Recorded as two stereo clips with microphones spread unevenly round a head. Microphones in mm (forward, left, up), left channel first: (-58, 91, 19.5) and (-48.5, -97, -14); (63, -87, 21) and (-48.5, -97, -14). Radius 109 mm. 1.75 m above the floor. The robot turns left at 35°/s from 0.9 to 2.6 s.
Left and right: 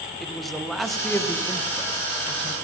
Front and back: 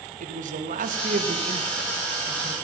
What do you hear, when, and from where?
0.2 s a man speaking: straight behind, 1.9 m; by 2.5 s 120° left, 1.9 m